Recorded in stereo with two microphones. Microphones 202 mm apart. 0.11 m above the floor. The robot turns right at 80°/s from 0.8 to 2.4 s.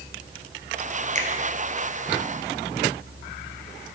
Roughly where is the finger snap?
Right.